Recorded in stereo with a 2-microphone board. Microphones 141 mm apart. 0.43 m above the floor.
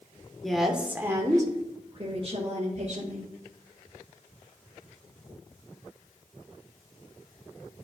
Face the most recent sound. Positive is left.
turn(degrees=-55)  # may be behind; listen again after turning